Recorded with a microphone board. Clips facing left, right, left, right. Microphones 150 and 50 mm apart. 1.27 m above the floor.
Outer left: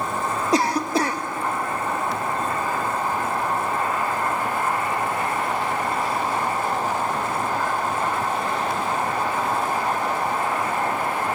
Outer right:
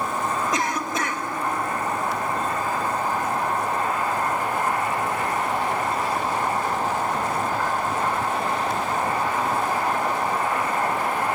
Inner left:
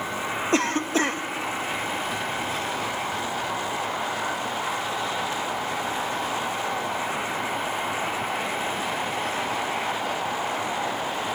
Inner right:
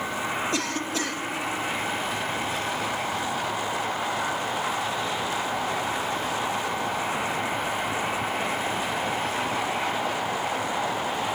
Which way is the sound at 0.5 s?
35° left (ahead or behind).